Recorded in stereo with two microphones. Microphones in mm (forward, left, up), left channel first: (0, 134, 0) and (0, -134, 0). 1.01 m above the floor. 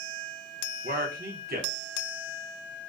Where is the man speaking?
35° right (ahead or behind), 0.6 m.